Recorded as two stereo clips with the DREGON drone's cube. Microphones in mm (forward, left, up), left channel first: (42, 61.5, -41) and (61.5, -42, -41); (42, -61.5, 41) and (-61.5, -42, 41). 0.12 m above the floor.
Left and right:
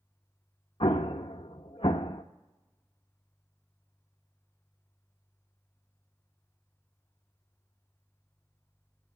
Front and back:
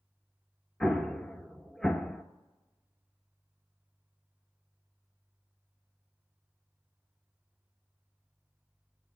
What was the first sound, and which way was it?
An explosion, 75° left.